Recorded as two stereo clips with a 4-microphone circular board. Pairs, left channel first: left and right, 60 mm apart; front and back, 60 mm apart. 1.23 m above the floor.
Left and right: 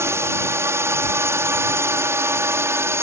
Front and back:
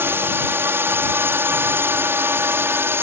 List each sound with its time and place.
0.0 s a drone: 130° right